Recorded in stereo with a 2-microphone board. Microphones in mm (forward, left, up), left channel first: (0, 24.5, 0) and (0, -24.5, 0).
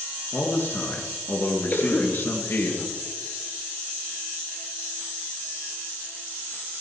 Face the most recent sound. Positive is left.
turn(degrees=40)  # may be behind; listen again after turning